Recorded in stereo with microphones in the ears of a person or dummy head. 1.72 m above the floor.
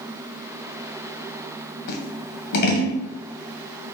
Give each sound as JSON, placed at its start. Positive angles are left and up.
{"t": 1.9, "sound": "scissors", "side_deg": 55, "distance_m": 1.0}